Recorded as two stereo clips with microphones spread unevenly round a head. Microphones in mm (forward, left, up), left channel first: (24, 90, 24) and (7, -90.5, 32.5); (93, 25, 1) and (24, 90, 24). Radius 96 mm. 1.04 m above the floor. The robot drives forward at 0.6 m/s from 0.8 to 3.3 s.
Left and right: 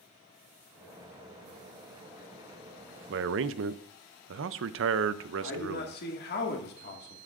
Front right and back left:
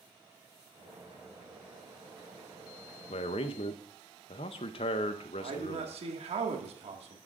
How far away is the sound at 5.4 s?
About 1.9 m.